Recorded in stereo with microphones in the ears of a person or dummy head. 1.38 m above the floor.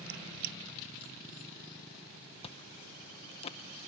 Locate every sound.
0.1 s a squeak: 50° right (ahead or behind)
2.4 s chewing: 30° left (ahead or behind)